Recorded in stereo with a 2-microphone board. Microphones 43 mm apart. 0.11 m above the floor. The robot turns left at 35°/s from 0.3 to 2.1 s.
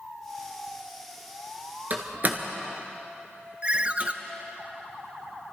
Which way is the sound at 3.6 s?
30° right (ahead or behind).